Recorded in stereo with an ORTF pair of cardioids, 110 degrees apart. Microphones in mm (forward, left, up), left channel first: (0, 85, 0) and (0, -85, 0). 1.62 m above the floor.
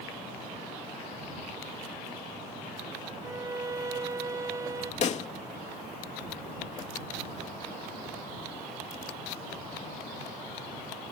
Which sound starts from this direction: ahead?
A violin, at 3.2 s.